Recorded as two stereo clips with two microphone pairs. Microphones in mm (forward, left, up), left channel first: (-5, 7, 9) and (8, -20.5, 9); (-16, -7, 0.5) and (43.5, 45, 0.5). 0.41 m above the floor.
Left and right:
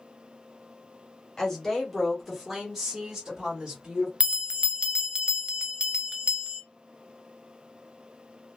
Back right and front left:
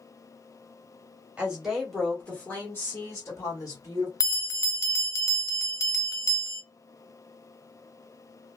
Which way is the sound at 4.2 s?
110° right.